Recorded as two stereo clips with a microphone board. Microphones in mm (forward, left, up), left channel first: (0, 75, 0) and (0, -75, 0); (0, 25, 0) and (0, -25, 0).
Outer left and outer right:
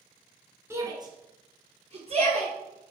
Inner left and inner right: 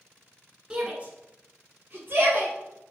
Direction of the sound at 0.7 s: 15° right (ahead or behind).